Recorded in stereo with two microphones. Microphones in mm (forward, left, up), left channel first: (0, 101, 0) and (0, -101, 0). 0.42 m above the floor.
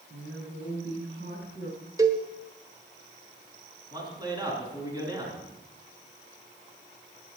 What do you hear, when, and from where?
0.1 s a woman speaking: 70° right (ahead or behind), 5 m; by 1.9 s 50° right (ahead or behind), 3 m
2.0 s a cowbell: 15° right (ahead or behind), 1.1 m
3.9 s a man speaking: 20° right (ahead or behind), 4.5 m